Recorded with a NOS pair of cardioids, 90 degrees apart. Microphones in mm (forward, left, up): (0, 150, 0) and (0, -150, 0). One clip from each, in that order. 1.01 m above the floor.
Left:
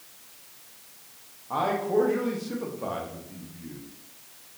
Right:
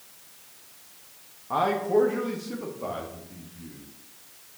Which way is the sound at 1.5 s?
20° right.